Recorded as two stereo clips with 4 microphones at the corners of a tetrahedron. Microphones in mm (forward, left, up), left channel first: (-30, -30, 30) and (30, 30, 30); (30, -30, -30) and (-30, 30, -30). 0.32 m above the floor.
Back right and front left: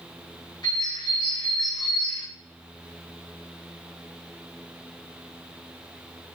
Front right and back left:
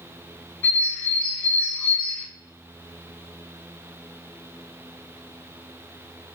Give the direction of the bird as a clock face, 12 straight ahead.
4 o'clock.